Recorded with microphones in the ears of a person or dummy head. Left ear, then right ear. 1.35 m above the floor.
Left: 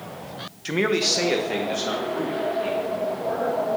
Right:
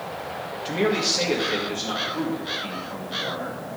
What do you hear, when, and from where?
0.7 s a man speaking: 35° left (ahead or behind), 0.6 m; by 3.6 s 50° left (ahead or behind), 4 m